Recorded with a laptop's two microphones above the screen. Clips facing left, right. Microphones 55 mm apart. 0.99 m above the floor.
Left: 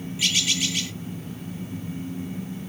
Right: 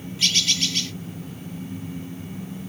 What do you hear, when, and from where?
0.2 s a bird: 5° left (ahead or behind), 0.6 m